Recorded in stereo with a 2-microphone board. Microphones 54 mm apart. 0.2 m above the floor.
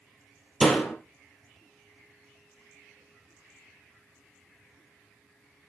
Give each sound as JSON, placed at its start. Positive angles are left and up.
{"t": 0.6, "sound": "a door slam", "side_deg": 0, "distance_m": 4.0}